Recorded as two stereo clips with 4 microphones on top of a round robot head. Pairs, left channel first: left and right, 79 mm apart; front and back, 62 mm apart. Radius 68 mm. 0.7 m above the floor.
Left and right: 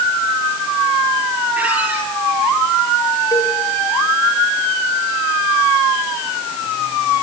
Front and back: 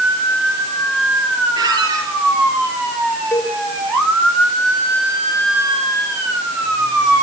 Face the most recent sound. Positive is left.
turn(degrees=35)